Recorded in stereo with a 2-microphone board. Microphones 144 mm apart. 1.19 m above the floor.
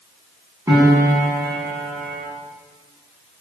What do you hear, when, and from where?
0.7 s a piano: 20° right (ahead or behind), 7.5 m